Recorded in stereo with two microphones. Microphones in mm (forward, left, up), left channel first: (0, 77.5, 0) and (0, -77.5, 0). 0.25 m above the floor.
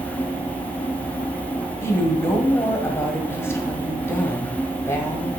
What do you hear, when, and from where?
1.8 s a woman speaking: 15° left (ahead or behind), 1.3 m